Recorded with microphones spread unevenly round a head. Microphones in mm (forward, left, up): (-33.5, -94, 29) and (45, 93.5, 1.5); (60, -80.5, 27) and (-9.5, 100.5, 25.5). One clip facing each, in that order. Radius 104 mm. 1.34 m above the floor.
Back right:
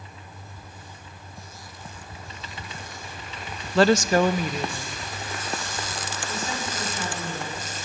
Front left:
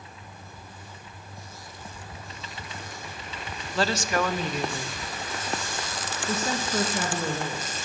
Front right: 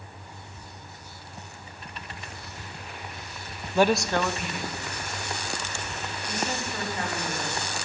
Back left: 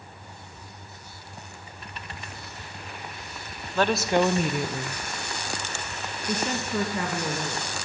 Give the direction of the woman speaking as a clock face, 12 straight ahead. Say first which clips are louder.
Back right 8 dB, even; 5 o'clock.